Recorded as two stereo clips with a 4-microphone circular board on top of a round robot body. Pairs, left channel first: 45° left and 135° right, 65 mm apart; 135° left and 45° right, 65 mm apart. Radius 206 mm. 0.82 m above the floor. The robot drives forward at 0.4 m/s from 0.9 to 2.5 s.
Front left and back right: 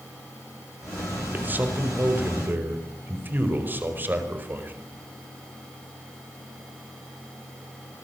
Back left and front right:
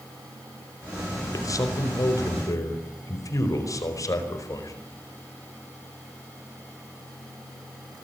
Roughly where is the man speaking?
Behind.